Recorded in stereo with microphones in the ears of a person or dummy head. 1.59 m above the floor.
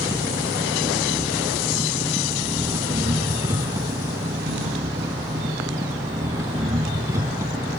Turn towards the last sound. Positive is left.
turn(degrees=-15)  # may be behind; listen again after turning